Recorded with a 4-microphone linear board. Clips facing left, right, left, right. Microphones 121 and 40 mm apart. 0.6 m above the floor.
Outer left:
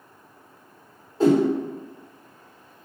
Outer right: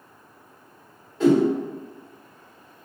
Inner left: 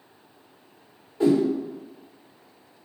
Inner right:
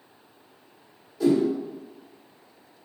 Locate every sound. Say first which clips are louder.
1.2 s a whoosh: even, inner left 1 dB; 35° left (ahead or behind), 1.1 m